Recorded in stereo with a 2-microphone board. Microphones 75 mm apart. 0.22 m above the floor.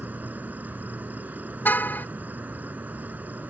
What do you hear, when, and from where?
0.0 s an insect: 20° right (ahead or behind)
1.6 s a car horn: 20° left (ahead or behind)